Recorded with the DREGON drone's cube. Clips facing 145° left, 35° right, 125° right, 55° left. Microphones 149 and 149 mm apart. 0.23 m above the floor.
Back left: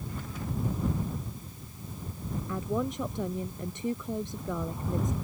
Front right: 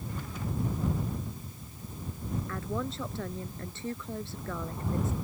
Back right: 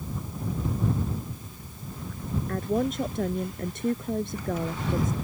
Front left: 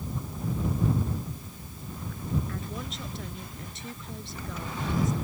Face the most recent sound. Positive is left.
turn(degrees=-140)